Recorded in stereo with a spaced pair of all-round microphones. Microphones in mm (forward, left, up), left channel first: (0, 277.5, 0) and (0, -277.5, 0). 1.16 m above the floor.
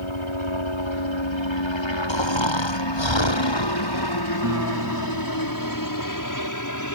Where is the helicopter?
60° left (ahead or behind); by 7.0 s 30° left (ahead or behind).